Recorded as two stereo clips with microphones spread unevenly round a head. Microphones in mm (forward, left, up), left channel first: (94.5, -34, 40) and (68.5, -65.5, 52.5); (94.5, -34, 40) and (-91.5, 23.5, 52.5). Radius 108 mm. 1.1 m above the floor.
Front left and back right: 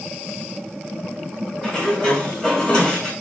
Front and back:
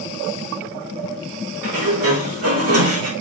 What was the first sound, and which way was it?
A sliding door, 155° left.